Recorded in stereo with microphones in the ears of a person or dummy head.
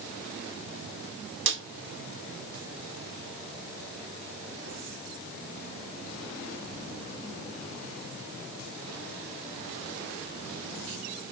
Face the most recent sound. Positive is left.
turn(degrees=-65)  # may be behind; listen again after turning